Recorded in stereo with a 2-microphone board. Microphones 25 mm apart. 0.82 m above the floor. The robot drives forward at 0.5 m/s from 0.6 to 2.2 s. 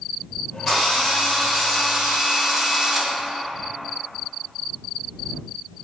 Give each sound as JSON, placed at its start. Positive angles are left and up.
{"t": 0.7, "sound": "a drill", "side_deg": -10, "distance_m": 1.1}